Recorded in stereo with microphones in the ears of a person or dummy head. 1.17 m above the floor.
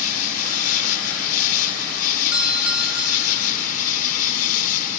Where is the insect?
50° left (ahead or behind).